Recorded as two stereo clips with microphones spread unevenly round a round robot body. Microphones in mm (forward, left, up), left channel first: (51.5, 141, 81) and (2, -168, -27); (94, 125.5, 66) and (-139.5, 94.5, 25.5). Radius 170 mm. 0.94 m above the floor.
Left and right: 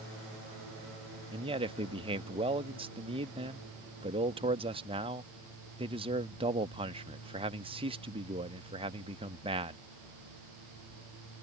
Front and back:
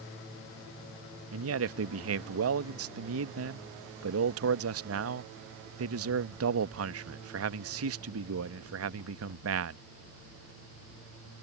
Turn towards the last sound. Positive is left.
turn(degrees=-165)